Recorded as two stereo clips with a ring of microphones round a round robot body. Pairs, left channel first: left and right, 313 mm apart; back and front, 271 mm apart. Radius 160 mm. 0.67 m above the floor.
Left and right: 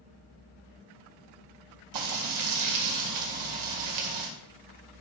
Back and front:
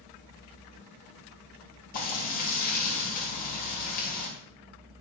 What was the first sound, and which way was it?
Frying, 115° right.